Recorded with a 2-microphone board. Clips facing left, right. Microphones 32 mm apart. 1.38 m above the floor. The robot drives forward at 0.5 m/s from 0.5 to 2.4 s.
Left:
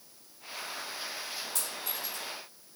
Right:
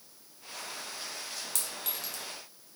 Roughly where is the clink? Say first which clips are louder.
Left 1 dB; right.